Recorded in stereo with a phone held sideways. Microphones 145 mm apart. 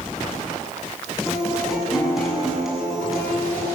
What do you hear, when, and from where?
1.3 s a guitar: centre (ahead or behind), 6 m